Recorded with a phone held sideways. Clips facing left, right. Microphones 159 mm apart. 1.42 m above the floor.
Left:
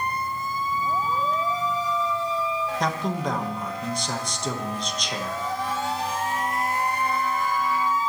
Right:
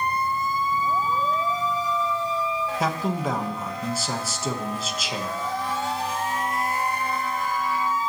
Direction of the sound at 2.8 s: 5° right (ahead or behind).